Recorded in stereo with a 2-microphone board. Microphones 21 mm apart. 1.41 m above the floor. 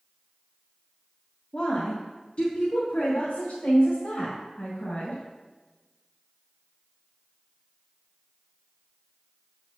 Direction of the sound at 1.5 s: 45° left (ahead or behind).